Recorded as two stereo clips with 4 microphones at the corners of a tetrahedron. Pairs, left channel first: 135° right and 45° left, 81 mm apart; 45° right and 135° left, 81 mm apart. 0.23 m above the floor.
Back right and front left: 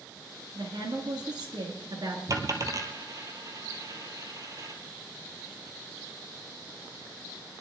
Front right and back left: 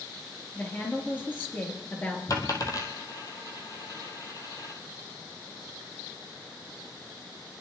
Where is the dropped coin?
Straight ahead, 1.8 m.